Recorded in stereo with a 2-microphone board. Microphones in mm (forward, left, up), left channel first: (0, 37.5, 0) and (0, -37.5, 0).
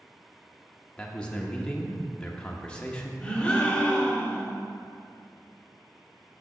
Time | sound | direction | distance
1.0 | a man speaking | 15° left (ahead or behind) | 0.7 m
3.2 | a gasp | 10° left (ahead or behind) | 1.1 m